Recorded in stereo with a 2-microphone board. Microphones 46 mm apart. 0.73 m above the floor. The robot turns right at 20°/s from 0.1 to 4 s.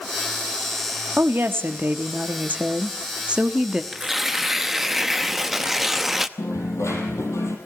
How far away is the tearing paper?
About 0.8 m.